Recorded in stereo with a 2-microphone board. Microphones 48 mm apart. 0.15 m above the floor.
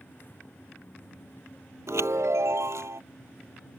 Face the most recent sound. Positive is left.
turn(degrees=-80)